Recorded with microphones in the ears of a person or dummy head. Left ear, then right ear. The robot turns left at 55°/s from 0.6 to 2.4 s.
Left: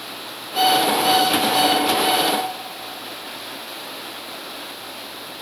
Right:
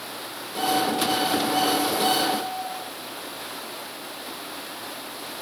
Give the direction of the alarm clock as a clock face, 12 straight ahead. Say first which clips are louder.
Left 7 dB; 10 o'clock.